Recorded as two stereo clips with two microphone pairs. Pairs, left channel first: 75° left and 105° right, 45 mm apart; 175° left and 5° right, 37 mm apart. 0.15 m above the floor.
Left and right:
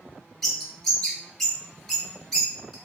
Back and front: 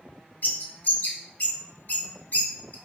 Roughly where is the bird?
Behind.